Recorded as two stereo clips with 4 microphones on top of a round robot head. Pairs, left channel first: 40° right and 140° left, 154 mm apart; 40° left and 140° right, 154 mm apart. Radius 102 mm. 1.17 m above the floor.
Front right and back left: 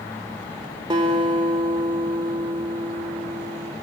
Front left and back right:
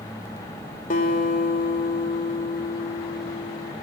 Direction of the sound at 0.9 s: 80° left.